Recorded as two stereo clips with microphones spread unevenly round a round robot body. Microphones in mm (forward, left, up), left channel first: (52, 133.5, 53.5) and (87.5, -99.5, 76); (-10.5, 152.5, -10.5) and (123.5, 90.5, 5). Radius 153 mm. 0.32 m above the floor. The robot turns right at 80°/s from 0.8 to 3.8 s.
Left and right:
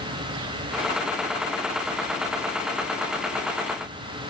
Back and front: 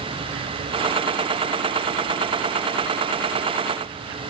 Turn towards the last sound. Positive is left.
No sound to turn to.